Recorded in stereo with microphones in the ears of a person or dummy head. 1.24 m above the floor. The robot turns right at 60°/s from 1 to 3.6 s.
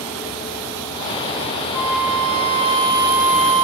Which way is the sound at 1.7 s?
125° right.